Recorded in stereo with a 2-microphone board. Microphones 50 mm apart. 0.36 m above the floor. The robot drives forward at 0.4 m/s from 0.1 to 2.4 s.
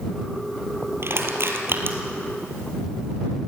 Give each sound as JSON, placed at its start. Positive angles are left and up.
{"t": 1.0, "sound": "crushing", "side_deg": -60, "distance_m": 2.5}